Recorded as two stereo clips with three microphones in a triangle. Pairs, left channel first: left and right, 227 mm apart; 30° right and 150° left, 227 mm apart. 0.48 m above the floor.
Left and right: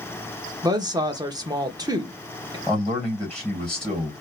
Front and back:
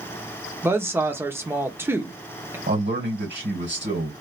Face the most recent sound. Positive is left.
turn(degrees=175)